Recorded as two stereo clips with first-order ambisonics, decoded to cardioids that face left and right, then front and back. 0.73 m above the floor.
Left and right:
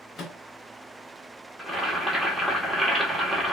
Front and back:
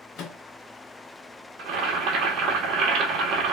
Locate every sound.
0.2 s a microwave: 40° left, 0.7 m
1.6 s boiling: 175° left, 0.9 m